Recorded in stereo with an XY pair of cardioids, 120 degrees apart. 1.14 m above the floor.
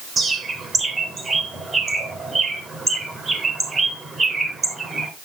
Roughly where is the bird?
Ahead right.